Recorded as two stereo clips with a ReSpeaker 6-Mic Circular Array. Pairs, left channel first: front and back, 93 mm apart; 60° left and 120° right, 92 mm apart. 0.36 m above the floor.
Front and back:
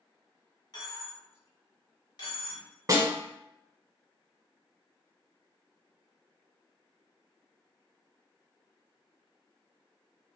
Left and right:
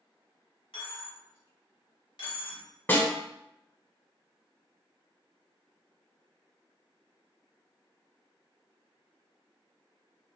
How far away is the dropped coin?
About 1.2 m.